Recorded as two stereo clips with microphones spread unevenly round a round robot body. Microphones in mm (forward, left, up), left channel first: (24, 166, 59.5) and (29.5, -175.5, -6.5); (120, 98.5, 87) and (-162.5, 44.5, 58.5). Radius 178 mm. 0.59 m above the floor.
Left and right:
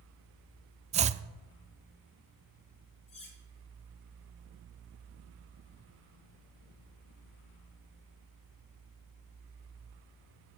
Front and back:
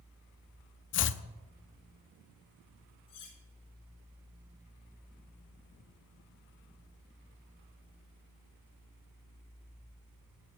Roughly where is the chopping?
Ahead right.